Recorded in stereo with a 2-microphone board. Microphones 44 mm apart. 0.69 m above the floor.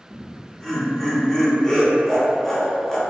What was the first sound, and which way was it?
Laughter, 10° left (ahead or behind).